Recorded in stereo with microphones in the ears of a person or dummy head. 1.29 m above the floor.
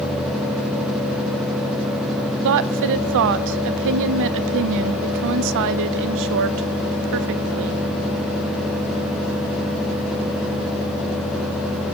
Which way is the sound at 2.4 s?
65° right (ahead or behind).